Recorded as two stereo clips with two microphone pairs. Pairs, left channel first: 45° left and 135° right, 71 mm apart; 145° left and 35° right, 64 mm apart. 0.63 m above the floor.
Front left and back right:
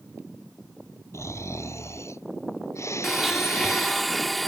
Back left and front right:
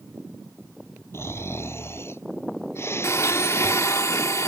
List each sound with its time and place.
1.1 s snoring: 95° left
3.0 s a blender: 135° left